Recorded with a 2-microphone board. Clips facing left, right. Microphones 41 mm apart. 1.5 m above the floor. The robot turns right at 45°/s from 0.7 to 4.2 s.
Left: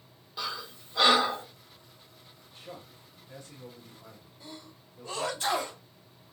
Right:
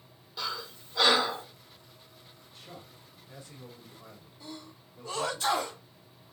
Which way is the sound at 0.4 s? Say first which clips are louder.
Even; 10° left (ahead or behind).